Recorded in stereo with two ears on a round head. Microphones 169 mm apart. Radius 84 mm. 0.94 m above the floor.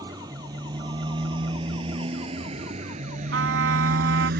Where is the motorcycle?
20° right (ahead or behind); by 4.4 s 55° right (ahead or behind).